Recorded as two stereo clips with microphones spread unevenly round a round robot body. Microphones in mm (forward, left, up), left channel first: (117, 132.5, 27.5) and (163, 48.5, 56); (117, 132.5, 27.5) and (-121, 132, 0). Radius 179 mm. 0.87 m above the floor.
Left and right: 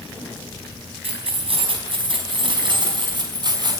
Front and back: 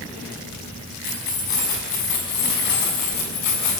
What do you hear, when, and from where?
1.0 s keys jangling: 50° right, 5 m; by 3.8 s 20° right, 6 m